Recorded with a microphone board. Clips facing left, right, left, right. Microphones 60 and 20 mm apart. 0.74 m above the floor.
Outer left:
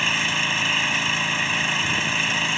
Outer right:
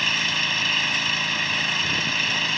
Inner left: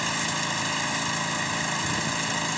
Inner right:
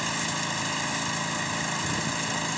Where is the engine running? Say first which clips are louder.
Outer left 2 dB, inner left 2 dB; 10° left (ahead or behind).